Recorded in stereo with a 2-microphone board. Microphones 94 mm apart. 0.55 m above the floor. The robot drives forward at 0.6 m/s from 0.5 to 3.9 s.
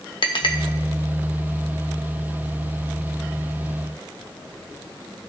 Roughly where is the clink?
Left.